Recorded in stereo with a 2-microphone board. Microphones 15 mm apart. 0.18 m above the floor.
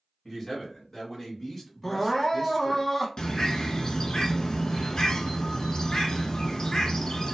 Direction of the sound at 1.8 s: 20° left (ahead or behind).